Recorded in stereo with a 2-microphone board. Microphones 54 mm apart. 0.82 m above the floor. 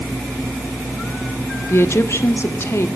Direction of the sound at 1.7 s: 45° left (ahead or behind).